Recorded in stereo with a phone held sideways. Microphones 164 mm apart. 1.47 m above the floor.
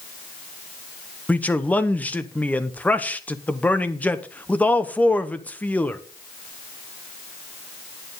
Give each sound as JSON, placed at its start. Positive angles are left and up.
{"t": 1.3, "sound": "a man speaking", "side_deg": 10, "distance_m": 0.8}